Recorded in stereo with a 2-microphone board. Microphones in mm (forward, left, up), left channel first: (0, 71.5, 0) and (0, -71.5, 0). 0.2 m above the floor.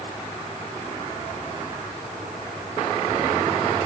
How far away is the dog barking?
I don't hear a dog barking.